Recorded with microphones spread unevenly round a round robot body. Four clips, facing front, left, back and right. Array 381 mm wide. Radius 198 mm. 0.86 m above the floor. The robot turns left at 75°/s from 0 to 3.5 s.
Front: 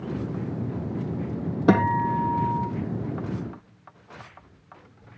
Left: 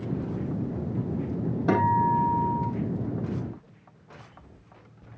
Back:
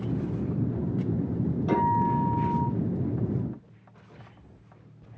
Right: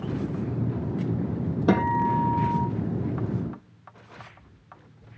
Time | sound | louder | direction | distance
1.7 | a guitar | even, front 4 dB | 15° right | 8.5 m